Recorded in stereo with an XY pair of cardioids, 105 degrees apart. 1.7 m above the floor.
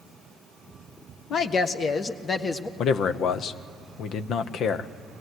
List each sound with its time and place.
1.3 s a woman speaking: 60° left, 1.4 m; by 2.7 s 30° left, 1.4 m
2.8 s a man speaking: 65° left, 1.0 m